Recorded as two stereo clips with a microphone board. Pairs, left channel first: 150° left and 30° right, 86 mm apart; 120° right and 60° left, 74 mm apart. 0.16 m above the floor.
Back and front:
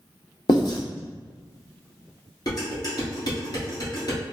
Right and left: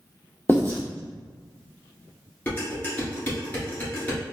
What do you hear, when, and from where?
0.5 s writing: 175° left, 1.6 m
2.5 s dishes clattering: 175° left, 1.7 m